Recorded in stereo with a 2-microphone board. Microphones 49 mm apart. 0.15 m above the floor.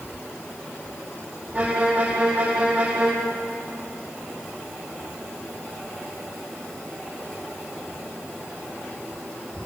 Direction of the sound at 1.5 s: 25° right (ahead or behind).